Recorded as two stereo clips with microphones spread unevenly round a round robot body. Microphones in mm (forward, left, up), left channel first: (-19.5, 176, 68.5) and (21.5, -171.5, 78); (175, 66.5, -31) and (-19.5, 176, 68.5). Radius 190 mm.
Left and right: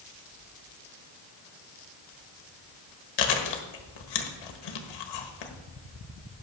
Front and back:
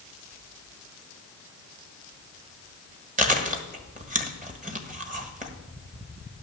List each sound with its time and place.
3.2 s chewing: 90° left, 1.5 m